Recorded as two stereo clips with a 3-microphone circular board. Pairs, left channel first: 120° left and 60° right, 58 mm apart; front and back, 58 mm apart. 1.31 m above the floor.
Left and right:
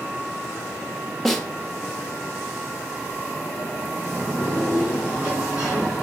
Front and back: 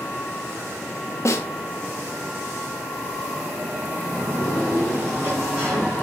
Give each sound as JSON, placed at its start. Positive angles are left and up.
{"t": 1.2, "sound": "a snare drum", "azimuth_deg": 35, "distance_m": 1.2}
{"t": 4.0, "sound": "a sliding door", "azimuth_deg": -130, "distance_m": 3.5}